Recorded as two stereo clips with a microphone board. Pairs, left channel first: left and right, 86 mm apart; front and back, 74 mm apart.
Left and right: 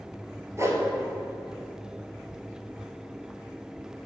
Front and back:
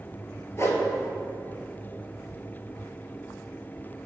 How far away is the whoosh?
About 1.4 m.